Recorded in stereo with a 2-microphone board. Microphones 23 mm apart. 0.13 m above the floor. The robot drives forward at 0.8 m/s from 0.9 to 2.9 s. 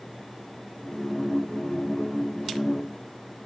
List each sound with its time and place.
Only background noise.